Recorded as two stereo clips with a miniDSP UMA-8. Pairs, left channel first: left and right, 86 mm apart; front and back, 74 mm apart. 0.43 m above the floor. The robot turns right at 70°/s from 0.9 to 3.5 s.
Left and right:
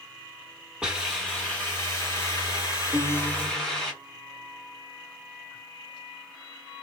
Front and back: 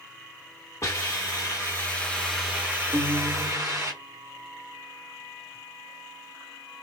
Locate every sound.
0.8 s a hiss: 15° right, 1.4 m; by 3.9 s 165° left, 1.4 m
2.9 s a guitar: 165° right, 0.8 m; by 3.9 s 125° right, 0.8 m